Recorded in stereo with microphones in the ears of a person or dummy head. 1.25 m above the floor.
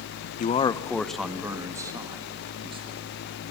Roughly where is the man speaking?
Left.